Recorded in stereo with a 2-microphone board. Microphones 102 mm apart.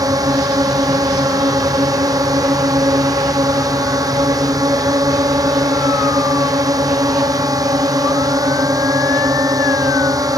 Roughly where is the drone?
Right.